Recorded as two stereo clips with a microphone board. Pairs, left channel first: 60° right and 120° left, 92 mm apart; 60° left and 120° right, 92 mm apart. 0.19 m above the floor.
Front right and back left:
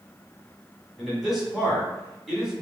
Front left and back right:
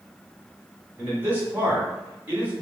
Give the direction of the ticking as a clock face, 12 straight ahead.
I don't hear ticking.